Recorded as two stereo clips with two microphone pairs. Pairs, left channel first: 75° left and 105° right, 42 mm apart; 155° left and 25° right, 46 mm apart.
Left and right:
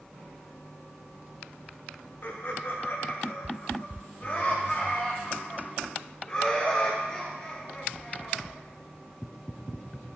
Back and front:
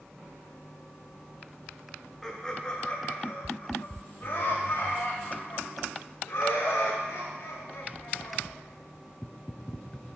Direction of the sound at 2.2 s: 75° left.